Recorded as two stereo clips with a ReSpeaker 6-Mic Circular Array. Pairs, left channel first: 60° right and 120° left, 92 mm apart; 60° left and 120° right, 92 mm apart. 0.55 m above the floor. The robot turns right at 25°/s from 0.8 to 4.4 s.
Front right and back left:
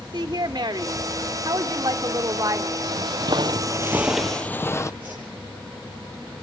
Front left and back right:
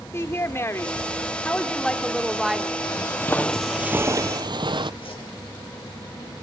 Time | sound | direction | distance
0.1 | a woman speaking | 110° left | 1.7 m
2.8 | footsteps | 95° left | 1.1 m
5.0 | a whoosh | 45° left | 10 m